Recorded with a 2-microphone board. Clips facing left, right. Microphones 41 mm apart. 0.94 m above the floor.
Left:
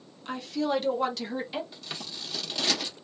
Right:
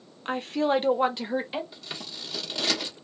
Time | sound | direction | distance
0.2 | a woman speaking | 40° right (ahead or behind) | 0.6 m
1.7 | scissors | 5° right (ahead or behind) | 0.7 m